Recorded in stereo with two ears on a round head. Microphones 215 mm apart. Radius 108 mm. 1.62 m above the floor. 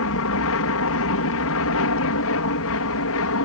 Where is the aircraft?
65° left (ahead or behind).